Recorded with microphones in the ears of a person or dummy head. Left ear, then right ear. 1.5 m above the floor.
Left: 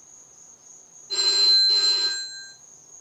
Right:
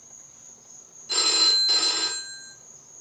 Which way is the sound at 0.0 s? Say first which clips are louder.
Right 2 dB; 35° left (ahead or behind).